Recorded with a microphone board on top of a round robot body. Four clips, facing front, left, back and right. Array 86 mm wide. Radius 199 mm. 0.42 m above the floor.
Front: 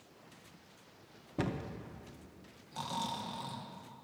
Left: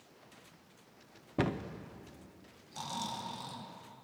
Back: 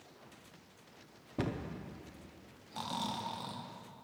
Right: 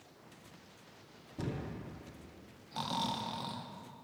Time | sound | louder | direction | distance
1.4 | a cupboard door | left 7 dB, front 1 dB | 85° left | 0.7 m
2.7 | snoring | right 4 dB, even | 100° right | 1.4 m